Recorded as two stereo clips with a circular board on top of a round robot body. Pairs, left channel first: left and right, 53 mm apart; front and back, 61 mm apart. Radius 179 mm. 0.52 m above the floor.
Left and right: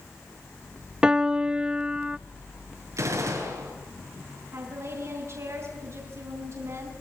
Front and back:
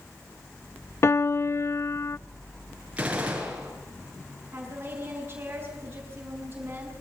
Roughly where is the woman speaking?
Behind right.